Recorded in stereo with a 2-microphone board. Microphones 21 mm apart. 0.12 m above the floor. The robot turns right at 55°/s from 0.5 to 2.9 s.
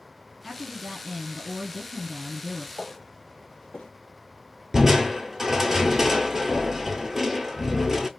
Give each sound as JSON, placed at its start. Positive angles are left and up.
{"t": 0.4, "sound": "a woman speaking", "azimuth_deg": 180, "distance_m": 1.6}
{"t": 2.8, "sound": "footsteps", "side_deg": 10, "distance_m": 1.1}
{"t": 4.7, "sound": "crushing", "side_deg": -10, "distance_m": 0.6}